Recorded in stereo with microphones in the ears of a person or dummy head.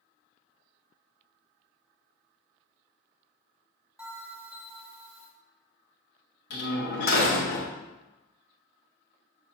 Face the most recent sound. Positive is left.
turn(degrees=75)  # may be behind; listen again after turning